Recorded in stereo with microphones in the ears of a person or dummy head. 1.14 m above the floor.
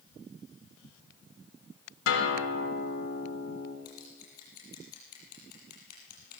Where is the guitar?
65° left (ahead or behind), 4 m.